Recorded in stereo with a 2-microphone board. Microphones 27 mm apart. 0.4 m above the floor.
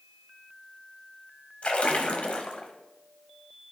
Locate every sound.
1.6 s a splash: 50° left (ahead or behind), 1.0 m